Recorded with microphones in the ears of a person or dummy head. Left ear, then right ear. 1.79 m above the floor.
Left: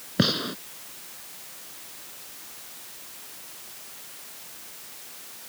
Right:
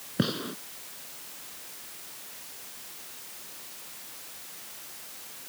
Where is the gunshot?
30° left (ahead or behind).